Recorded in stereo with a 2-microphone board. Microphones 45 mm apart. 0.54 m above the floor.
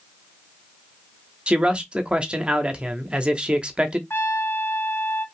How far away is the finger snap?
I don't hear a finger snap.